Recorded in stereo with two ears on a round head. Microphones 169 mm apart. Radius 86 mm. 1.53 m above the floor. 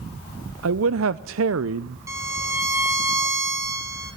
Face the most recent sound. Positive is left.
turn(degrees=-15)  # may be behind; listen again after turning